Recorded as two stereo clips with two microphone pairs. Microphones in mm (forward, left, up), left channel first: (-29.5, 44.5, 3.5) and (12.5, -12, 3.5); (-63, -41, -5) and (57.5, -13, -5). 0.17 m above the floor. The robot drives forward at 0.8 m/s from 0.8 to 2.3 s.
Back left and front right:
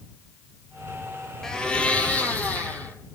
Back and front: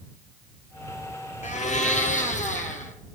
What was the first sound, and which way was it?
A blender, 155° right.